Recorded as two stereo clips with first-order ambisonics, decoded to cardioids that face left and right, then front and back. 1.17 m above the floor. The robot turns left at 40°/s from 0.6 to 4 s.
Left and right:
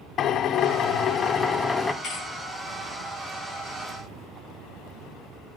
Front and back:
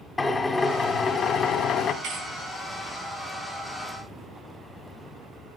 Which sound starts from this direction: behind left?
A thud, at 2.0 s.